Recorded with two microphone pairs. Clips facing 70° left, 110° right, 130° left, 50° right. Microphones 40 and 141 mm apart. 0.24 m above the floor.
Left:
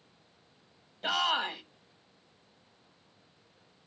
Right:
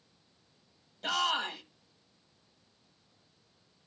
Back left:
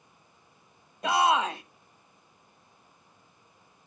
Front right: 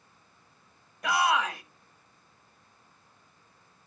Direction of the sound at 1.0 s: 125° left.